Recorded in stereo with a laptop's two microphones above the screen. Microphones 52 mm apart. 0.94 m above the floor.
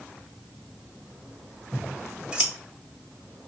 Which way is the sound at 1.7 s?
15° right (ahead or behind).